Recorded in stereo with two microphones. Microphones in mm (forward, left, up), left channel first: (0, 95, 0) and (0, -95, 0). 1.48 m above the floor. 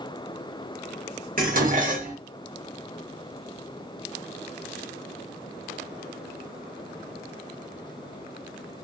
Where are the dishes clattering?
45° right (ahead or behind), 0.8 m.